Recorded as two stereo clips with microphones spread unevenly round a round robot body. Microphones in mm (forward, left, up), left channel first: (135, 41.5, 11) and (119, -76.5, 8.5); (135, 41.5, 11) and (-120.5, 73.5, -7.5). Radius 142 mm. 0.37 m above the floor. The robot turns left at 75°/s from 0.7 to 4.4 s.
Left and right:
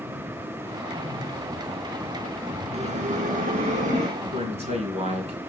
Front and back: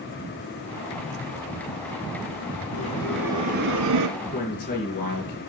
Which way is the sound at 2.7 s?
65° right.